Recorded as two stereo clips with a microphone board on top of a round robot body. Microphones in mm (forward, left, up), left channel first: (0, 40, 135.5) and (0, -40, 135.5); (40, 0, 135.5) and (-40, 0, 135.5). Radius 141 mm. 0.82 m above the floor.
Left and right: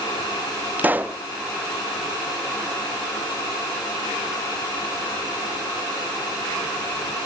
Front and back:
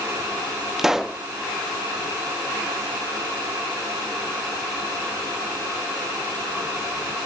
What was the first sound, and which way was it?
A pop, 105° right.